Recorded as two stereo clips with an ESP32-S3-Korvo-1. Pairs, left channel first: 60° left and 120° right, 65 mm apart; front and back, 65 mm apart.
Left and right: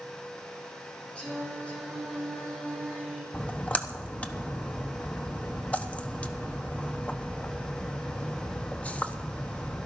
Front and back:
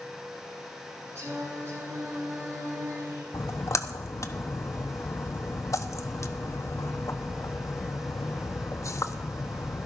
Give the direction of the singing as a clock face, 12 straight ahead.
8 o'clock.